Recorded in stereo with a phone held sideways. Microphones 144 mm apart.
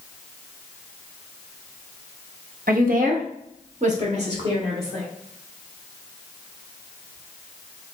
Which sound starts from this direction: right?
A woman speaking, at 2.7 s.